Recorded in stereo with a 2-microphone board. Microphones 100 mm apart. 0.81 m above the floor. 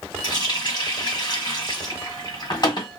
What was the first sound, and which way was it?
A running tap, 45° left (ahead or behind).